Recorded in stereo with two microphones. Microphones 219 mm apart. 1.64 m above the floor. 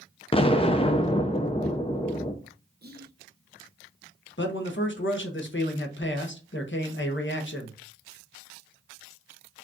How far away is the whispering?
About 1.0 m.